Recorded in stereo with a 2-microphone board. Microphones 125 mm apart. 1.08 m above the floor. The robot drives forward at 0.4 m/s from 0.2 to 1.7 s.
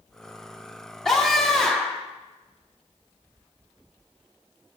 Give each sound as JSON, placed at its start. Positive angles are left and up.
{"t": 1.1, "sound": "a scream", "side_deg": 5, "distance_m": 1.3}